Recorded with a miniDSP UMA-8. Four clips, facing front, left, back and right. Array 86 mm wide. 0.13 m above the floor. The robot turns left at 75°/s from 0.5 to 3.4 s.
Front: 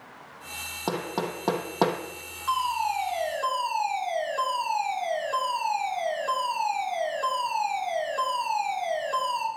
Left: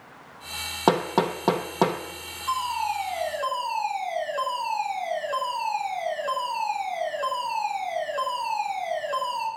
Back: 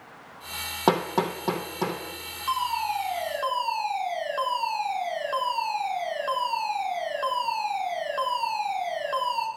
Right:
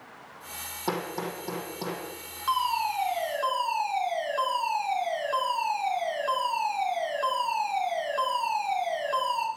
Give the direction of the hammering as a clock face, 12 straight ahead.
8 o'clock.